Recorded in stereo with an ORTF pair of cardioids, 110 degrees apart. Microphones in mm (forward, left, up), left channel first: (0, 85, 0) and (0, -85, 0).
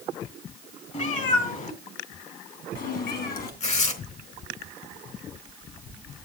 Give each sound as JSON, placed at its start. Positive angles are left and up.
{"t": 0.9, "sound": "a cat meowing", "azimuth_deg": 45, "distance_m": 3.5}
{"t": 3.6, "sound": "tearing paper", "azimuth_deg": 40, "distance_m": 3.5}